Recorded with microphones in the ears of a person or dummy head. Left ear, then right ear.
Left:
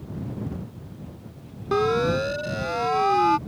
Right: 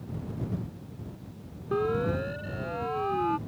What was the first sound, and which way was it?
A siren, 80° left.